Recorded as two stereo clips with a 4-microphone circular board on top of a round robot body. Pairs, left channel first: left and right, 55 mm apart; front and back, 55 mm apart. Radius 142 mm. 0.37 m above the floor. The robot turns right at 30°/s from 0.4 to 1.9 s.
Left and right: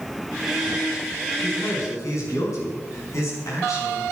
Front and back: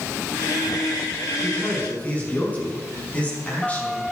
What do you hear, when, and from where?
1.4 s a man speaking: 50° left, 5.5 m; by 4.0 s 65° left, 5.5 m